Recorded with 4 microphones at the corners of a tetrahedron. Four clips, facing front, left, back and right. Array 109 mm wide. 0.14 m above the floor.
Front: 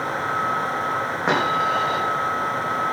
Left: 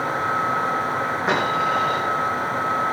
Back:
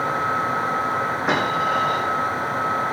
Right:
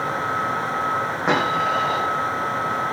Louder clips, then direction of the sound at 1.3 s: Right 1 dB, front 2 dB; 35° right.